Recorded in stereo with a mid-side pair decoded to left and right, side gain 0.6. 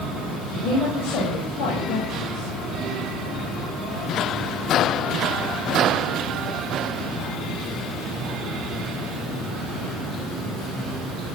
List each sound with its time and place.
0.5 s a woman speaking: 65° left, 9 m